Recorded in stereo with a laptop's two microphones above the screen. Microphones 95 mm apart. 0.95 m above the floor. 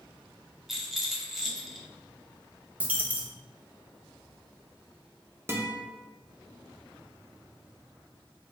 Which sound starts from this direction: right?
A guitar, at 5.5 s.